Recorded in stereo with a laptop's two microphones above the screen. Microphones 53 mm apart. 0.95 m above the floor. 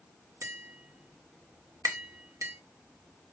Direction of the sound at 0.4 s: 85° right.